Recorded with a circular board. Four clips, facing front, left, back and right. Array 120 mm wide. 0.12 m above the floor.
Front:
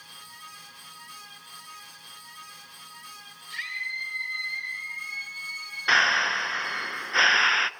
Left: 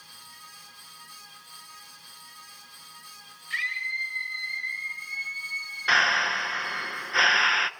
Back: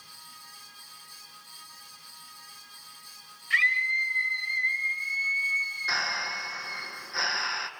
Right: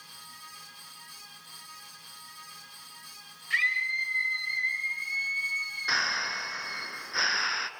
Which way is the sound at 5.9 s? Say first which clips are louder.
Left 8 dB, front 10 dB; 40° left.